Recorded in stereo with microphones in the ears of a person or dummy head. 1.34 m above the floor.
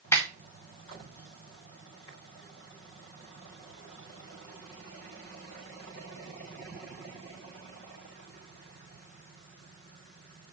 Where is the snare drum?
15° left (ahead or behind), 1.6 m.